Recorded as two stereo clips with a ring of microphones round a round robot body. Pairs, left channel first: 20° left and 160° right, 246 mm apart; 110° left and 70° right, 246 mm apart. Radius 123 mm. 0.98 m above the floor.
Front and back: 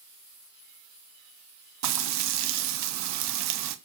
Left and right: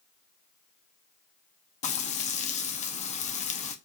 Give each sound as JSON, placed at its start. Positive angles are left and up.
{"t": 1.8, "sound": "frying", "azimuth_deg": 175, "distance_m": 0.7}